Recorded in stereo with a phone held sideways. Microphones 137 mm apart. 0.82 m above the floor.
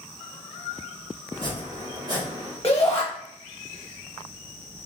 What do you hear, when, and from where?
1.3 s chopping: 30° right (ahead or behind), 1.8 m
2.6 s a shout: 20° left (ahead or behind), 0.9 m